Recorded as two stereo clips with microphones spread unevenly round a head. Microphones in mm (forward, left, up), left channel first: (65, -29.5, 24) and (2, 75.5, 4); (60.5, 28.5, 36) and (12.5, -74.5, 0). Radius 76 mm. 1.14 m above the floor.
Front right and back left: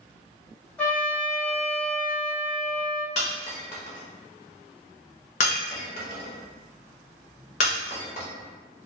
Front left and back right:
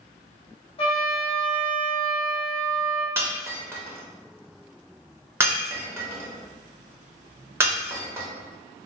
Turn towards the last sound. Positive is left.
turn(degrees=-40)